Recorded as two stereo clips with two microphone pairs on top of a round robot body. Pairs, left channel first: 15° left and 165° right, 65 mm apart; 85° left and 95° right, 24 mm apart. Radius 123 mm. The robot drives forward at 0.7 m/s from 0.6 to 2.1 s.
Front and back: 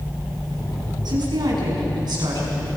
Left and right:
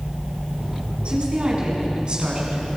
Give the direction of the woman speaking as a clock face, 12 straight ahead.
5 o'clock.